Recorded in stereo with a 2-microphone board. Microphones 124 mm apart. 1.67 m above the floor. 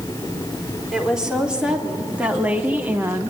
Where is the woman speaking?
5° right (ahead or behind), 4 m; by 3.3 s 20° right (ahead or behind), 1.4 m.